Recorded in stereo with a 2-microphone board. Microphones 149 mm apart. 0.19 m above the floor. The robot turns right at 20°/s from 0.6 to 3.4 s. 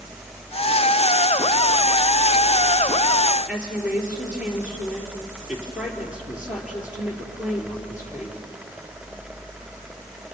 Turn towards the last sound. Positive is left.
turn(degrees=-5)  # may be behind; listen again after turning